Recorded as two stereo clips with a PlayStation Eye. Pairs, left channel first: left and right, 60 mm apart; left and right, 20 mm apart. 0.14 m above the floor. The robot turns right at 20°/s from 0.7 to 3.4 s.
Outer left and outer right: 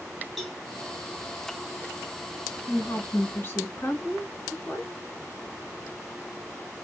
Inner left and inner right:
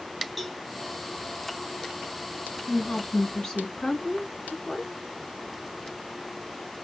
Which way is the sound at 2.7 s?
40° left (ahead or behind).